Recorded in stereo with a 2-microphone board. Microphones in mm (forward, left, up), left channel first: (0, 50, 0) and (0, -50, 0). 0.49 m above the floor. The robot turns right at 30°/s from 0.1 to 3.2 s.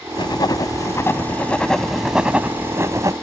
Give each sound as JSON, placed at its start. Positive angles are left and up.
{"t": 0.2, "sound": "writing", "azimuth_deg": 130}